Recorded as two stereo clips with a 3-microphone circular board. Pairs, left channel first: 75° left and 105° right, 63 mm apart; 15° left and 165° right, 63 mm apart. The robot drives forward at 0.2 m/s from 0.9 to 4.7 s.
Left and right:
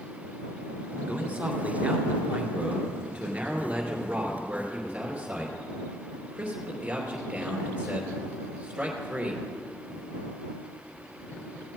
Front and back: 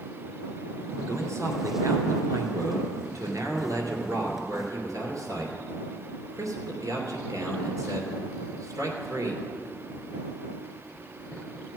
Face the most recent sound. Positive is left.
turn(degrees=-170)